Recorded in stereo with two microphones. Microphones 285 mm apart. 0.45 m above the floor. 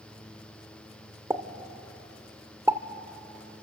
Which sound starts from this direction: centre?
A pop, at 1.3 s.